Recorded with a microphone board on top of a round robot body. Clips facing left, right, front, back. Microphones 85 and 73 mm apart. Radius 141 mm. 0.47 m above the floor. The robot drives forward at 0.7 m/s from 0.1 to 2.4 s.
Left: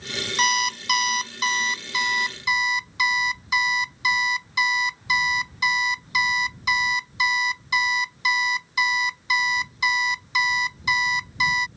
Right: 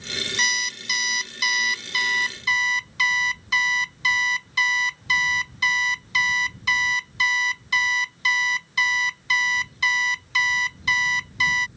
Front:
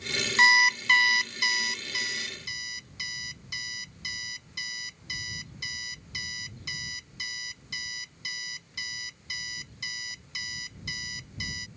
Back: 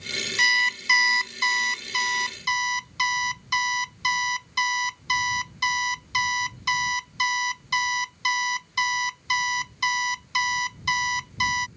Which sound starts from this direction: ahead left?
An alarm clock, at 0.4 s.